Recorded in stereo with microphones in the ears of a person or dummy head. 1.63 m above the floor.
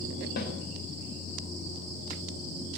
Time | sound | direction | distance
0.4 | a snare drum | 55° left (ahead or behind) | 3.5 m